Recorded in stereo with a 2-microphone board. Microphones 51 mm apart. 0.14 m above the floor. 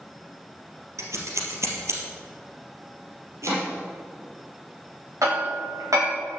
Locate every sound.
1.0 s scissors: 65° right (ahead or behind), 3 m
3.4 s chopping: 70° right (ahead or behind), 4.5 m
5.2 s hammering: 85° right, 5.5 m